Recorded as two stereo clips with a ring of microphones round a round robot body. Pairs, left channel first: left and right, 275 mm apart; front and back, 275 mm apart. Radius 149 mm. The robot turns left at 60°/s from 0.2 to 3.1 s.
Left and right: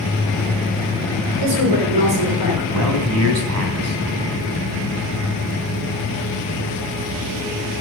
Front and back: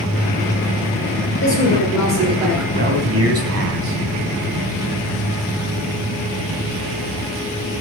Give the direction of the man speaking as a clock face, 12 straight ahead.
4 o'clock.